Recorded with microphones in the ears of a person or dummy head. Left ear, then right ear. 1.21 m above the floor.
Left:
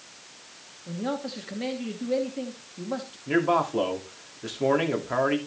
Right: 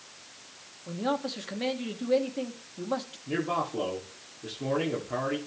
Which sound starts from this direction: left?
A man speaking, at 3.3 s.